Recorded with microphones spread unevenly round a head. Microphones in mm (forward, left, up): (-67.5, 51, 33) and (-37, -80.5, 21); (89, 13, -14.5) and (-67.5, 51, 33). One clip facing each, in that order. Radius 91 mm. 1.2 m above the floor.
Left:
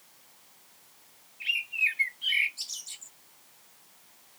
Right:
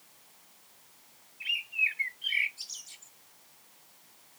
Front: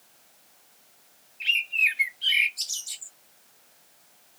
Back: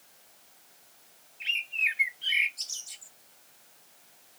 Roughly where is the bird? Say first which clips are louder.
Left 2 dB, front 5 dB; ahead left.